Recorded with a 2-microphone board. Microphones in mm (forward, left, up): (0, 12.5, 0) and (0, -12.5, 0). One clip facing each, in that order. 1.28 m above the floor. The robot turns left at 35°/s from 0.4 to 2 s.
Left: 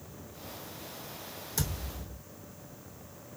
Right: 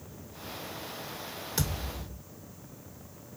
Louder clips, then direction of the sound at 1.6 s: Right 2 dB; 30° right (ahead or behind).